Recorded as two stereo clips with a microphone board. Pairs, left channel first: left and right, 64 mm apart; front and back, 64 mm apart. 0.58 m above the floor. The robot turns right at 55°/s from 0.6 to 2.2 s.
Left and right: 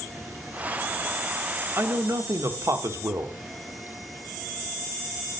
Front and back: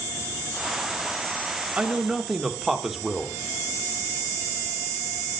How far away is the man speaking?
About 1.5 m.